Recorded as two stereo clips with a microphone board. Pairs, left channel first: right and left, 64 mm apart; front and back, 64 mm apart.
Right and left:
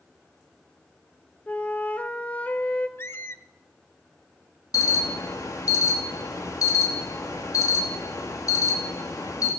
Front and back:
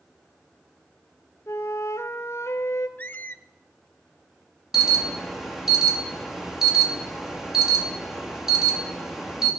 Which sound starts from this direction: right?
An alarm, at 4.7 s.